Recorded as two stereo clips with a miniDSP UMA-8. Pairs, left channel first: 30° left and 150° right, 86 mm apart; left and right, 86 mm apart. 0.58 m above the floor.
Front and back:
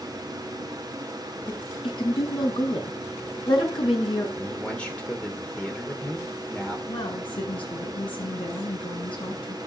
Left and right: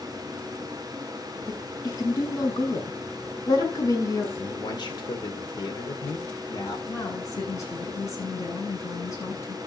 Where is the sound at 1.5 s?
45° left, 5.5 m.